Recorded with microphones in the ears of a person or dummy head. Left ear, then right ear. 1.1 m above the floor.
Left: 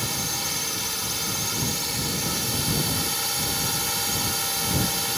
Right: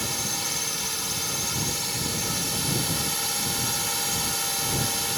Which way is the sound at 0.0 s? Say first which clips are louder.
Left 1 dB; 5° right (ahead or behind).